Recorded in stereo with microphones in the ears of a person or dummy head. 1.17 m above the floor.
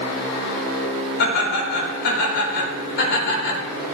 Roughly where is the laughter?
Left.